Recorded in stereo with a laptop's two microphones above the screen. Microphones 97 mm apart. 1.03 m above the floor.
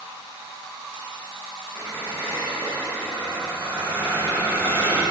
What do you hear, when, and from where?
1.8 s a squeak: 25° left (ahead or behind), 3 m